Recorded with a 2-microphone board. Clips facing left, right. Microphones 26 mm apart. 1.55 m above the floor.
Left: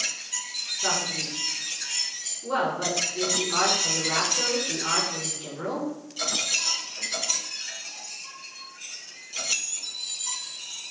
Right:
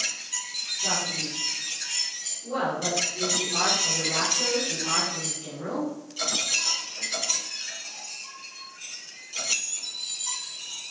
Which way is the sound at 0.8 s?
80° left.